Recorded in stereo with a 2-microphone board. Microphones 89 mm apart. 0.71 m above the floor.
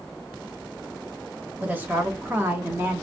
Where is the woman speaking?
20° right (ahead or behind), 1.1 m; by 3.0 s 25° right (ahead or behind), 1.0 m.